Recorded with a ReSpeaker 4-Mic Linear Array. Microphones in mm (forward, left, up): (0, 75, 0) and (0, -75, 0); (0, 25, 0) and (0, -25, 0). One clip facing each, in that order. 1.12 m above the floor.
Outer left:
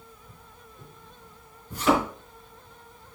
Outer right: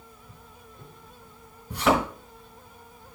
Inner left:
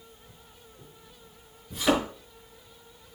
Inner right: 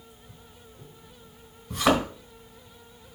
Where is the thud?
75° right (ahead or behind), 3.5 m.